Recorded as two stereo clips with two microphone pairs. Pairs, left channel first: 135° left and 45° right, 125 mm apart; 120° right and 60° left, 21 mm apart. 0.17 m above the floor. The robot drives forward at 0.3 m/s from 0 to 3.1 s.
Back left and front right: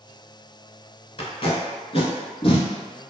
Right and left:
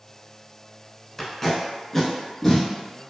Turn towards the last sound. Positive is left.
turn(degrees=175)